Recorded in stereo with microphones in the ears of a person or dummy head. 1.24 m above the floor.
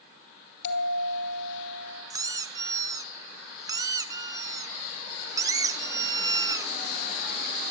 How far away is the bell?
About 4 m.